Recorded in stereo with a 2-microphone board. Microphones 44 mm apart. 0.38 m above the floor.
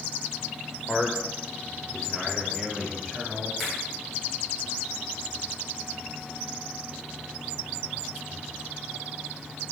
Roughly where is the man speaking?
Centre.